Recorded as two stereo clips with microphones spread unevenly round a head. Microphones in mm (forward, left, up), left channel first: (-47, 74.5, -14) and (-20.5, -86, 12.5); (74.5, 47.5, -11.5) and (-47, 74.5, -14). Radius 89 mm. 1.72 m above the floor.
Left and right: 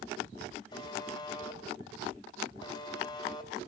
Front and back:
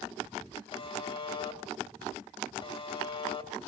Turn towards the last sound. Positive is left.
turn(degrees=30)